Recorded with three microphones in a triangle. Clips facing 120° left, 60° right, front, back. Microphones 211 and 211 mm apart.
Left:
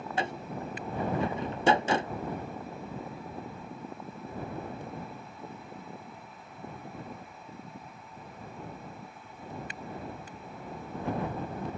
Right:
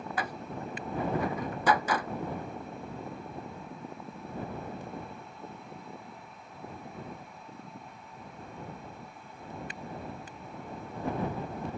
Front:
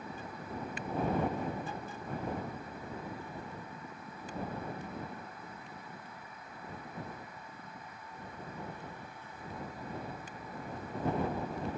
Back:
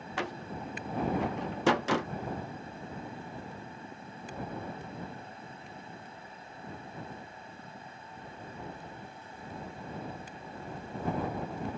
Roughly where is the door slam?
Behind.